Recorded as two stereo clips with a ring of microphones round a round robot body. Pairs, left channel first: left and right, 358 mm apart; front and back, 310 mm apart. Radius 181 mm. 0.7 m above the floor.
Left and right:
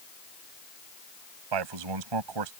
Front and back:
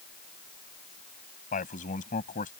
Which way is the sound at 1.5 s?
70° right.